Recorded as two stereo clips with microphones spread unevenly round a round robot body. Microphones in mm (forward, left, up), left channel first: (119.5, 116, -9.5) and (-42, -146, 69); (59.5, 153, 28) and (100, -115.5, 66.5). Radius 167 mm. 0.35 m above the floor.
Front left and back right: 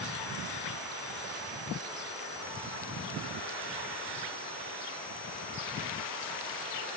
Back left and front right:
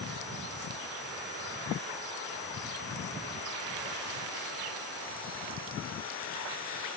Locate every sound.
Only background noise.